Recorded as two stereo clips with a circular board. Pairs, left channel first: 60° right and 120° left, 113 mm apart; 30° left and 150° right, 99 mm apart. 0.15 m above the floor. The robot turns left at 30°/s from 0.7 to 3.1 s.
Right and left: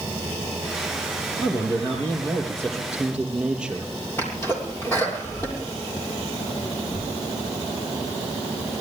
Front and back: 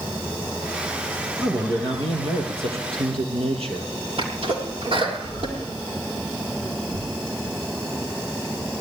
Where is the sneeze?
125° right, 6 m.